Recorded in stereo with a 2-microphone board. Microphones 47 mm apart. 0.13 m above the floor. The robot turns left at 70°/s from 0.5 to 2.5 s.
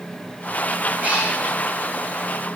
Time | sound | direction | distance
1.0 | a cat meowing | 40° right (ahead or behind) | 5 m